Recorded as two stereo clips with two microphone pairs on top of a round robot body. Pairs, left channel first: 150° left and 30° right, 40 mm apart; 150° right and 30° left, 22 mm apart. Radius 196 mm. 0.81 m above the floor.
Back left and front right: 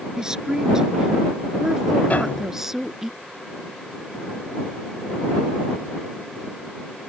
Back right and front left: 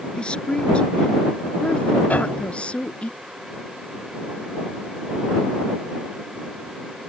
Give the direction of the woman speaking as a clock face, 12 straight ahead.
3 o'clock.